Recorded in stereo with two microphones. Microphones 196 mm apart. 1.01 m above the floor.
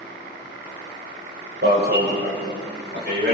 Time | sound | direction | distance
1.6 | an alarm | 60° right (ahead or behind) | 6.5 m